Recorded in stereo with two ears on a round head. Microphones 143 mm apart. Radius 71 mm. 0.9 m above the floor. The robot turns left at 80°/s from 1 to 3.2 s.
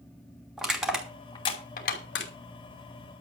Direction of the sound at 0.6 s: 5° right (ahead or behind).